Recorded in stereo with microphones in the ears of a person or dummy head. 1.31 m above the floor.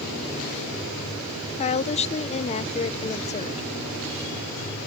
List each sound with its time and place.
1.6 s a woman speaking: 35° left (ahead or behind)